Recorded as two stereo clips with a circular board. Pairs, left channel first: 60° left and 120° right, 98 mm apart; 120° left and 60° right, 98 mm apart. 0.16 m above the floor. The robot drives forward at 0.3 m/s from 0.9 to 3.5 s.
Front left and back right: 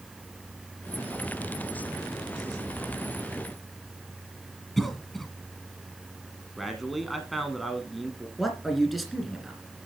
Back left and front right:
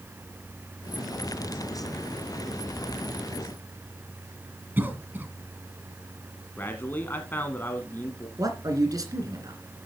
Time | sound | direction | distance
4.8 | a cough | 25° right | 1.4 m
6.6 | a man speaking | 150° left | 1.1 m
8.4 | a man speaking | 30° right | 2.5 m